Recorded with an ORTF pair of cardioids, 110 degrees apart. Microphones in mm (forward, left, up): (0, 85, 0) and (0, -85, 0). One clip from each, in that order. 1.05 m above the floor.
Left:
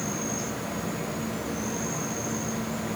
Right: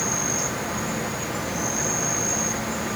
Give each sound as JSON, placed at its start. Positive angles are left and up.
{"t": 0.0, "sound": "an insect", "azimuth_deg": -50, "distance_m": 1.0}